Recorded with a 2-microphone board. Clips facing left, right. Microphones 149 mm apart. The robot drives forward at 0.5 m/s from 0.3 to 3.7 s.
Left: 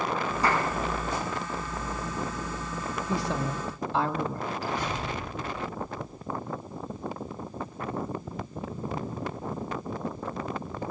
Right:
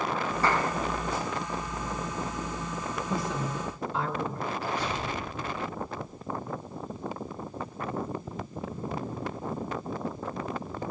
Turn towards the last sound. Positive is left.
turn(degrees=50)  # may be behind; listen again after turning